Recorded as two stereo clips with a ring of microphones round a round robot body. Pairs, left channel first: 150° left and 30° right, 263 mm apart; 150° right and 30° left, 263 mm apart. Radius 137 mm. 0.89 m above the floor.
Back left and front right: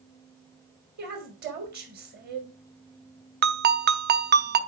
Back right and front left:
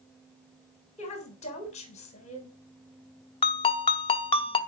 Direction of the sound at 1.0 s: 85° right.